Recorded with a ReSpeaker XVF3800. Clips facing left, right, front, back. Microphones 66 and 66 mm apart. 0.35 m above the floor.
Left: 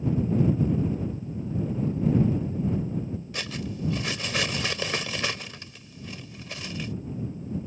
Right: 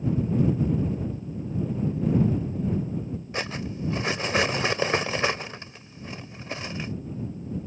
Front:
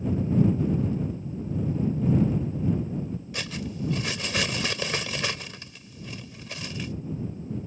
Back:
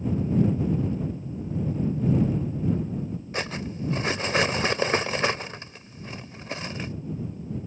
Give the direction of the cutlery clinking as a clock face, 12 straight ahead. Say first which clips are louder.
Right 5 dB, back 4 dB; 5 o'clock.